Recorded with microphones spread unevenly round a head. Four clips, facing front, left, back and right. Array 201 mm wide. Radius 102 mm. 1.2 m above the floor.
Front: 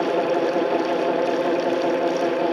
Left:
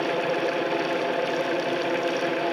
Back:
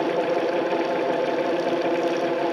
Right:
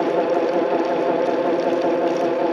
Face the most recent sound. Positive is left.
No sound to turn to.